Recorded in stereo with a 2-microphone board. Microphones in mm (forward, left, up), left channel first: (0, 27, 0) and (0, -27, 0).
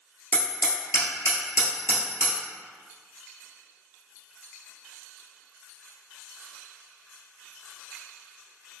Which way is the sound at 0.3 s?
60° left (ahead or behind).